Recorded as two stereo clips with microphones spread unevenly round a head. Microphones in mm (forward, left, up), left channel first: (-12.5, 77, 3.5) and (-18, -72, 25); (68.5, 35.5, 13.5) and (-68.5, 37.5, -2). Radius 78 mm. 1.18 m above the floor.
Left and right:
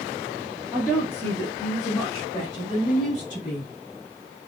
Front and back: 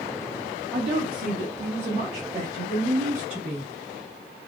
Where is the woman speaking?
170° left, 1.3 m; by 3.7 s 145° left, 3.5 m.